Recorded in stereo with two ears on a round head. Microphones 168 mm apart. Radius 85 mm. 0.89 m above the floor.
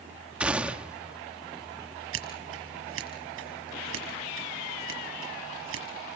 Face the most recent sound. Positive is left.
turn(degrees=-80)